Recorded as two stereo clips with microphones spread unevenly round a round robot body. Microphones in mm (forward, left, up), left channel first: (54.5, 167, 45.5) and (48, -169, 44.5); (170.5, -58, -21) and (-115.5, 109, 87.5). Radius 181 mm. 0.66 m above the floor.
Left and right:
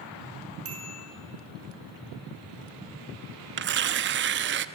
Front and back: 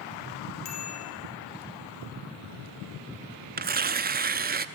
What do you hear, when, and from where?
0.7 s a bicycle bell: 40° right, 6.5 m
3.6 s tearing paper: 135° right, 0.8 m